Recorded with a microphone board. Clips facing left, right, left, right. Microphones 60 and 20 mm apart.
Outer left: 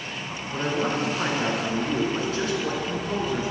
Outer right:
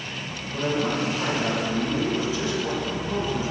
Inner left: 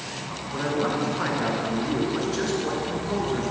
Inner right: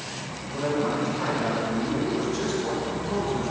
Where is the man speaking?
55° left (ahead or behind), 3 m.